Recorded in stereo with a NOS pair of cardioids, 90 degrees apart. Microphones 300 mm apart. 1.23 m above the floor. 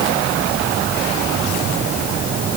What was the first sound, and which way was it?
Only background noise.